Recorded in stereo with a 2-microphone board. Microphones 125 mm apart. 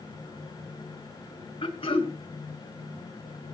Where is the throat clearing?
50° left (ahead or behind), 1.6 m.